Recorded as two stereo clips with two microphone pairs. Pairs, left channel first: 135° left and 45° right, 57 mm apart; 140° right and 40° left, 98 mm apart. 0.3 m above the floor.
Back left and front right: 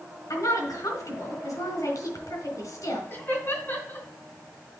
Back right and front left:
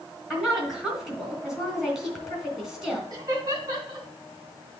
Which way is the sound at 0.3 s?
125° left.